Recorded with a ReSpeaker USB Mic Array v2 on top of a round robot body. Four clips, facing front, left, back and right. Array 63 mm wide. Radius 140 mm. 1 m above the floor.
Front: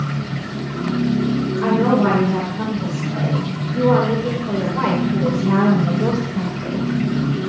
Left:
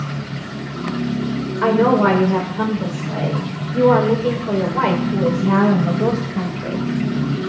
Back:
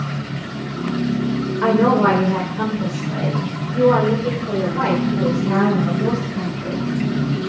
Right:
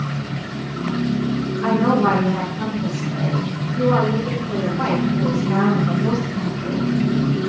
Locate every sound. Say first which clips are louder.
1.6 s a woman speaking: left 3 dB, back 2 dB; 115° left, 4 m; by 6.9 s 75° left, 4.5 m